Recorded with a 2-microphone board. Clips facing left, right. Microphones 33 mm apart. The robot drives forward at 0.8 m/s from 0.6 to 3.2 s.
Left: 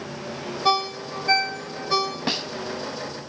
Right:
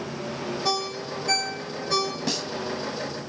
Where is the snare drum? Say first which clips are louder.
Left 2 dB; 30° left (ahead or behind), 1.0 m.